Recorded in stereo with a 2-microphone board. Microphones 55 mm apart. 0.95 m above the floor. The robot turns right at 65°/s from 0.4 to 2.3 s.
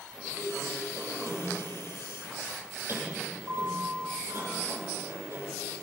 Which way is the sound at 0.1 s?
170° right.